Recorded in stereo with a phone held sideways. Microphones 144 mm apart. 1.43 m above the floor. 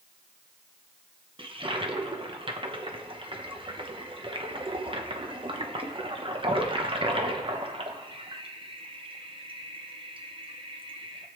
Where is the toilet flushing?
35° right (ahead or behind), 1.1 m.